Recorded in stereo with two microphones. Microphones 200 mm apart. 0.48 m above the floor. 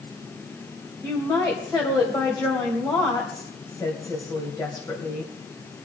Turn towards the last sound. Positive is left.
turn(degrees=20)  # may be behind; listen again after turning